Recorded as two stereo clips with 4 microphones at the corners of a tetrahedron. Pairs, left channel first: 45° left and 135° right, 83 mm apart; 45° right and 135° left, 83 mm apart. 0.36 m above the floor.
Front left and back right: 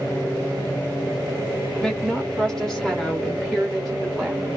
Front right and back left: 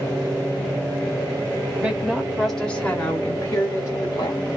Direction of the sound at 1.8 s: 105° left.